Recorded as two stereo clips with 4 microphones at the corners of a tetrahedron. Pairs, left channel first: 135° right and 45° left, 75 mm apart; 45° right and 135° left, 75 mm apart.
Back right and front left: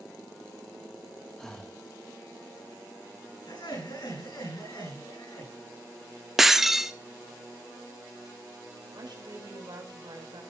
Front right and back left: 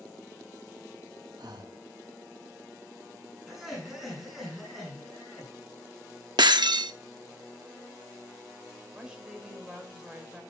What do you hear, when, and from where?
1.4 s breathing: 145° left, 1.2 m
3.5 s laughter: 140° right, 9 m
6.4 s breaking glass: 130° left, 0.7 m
8.9 s a woman speaking: 60° left, 5 m